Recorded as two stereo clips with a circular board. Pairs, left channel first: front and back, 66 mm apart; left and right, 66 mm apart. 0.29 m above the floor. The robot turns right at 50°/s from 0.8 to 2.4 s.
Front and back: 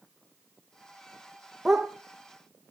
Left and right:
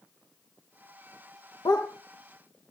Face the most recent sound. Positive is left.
turn(degrees=130)